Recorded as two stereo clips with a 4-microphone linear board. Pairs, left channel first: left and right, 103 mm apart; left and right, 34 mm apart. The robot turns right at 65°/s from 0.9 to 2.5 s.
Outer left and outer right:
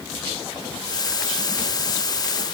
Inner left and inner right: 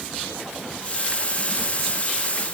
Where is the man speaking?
No man speaking in this recording.